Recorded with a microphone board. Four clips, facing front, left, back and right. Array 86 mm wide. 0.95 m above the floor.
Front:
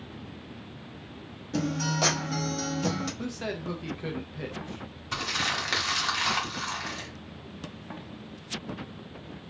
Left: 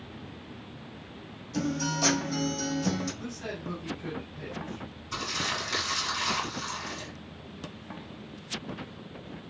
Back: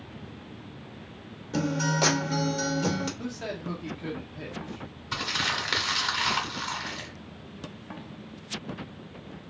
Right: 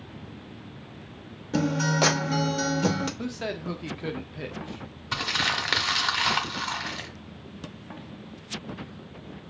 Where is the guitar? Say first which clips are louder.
Right 5 dB, back 2 dB; 95° right, 0.8 m.